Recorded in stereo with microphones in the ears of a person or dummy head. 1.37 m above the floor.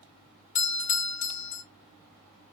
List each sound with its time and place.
0.6 s a doorbell: 35° left (ahead or behind), 0.8 m